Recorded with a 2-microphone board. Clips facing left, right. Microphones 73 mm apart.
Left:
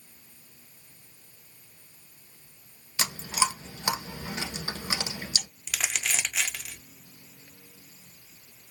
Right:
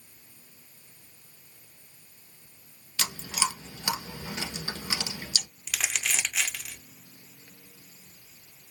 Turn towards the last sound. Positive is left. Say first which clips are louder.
# even
turn(degrees=5)  # may be behind; listen again after turning